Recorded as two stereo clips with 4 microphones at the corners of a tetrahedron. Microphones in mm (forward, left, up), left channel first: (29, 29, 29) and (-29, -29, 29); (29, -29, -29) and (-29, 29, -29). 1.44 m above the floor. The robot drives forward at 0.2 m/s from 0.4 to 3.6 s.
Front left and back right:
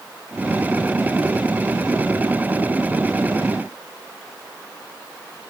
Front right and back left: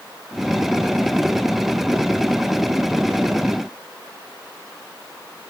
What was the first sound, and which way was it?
Only background noise.